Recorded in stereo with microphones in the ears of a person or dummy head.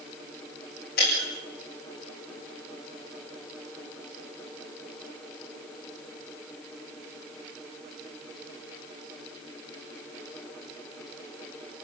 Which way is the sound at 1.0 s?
55° left (ahead or behind).